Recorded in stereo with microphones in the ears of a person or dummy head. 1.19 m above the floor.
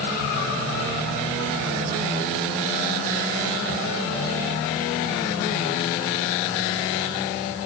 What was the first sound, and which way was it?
Only background noise.